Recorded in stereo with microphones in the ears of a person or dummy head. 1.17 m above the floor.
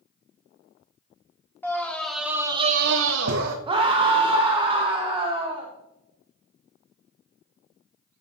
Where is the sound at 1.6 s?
10° left (ahead or behind), 1.9 m; by 3.6 s 50° right (ahead or behind), 1.2 m.